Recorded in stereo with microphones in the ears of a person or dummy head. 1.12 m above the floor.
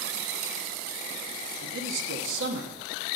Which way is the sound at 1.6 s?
70° right (ahead or behind).